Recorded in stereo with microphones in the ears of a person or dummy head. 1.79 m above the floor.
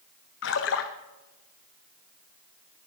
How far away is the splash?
About 1.0 m.